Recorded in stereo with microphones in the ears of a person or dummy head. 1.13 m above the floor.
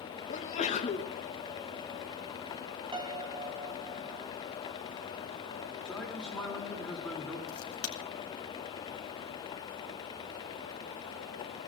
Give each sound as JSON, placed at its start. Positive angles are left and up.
{"t": 0.3, "sound": "a sneeze", "side_deg": 35, "distance_m": 1.3}
{"t": 2.9, "sound": "a piano", "side_deg": -20, "distance_m": 0.7}
{"t": 5.8, "sound": "a man speaking", "side_deg": 5, "distance_m": 3.0}
{"t": 7.5, "sound": "a crack", "side_deg": 70, "distance_m": 2.5}